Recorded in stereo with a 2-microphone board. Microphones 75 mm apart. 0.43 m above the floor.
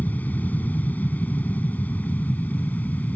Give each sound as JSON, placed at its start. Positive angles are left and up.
{"t": 0.0, "sound": "an aircraft", "side_deg": 20}